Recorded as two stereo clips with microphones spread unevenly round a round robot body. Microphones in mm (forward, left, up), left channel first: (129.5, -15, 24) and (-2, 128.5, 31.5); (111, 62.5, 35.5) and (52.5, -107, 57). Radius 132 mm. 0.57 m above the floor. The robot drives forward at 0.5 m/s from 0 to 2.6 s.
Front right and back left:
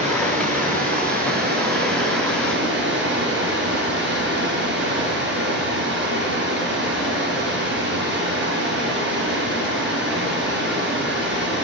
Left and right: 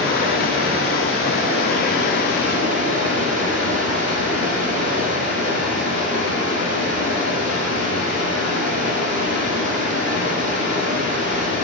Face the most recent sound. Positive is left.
turn(degrees=105)